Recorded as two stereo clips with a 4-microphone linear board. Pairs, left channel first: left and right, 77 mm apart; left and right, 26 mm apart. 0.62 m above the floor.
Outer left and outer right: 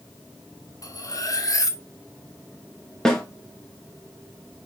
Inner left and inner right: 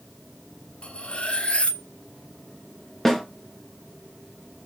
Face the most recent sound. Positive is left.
turn(degrees=10)  # may be behind; listen again after turning